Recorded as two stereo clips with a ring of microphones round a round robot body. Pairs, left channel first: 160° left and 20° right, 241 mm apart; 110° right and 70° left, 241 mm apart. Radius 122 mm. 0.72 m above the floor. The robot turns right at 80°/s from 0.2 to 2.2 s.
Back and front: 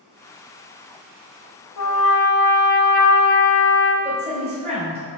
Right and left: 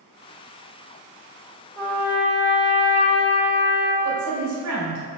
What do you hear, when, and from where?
1.8 s a trumpet: 165° left, 0.9 m; by 3.9 s 160° right, 0.9 m
4.0 s a woman speaking: 45° left, 2 m